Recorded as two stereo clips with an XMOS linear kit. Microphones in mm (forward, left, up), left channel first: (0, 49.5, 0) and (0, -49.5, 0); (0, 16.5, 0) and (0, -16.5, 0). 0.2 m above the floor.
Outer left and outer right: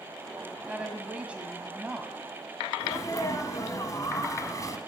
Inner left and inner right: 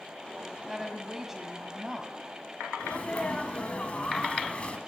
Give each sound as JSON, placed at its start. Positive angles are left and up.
{"t": 0.7, "sound": "a woman speaking", "side_deg": -15, "distance_m": 1.3}
{"t": 2.8, "sound": "a sneeze", "side_deg": 35, "distance_m": 1.2}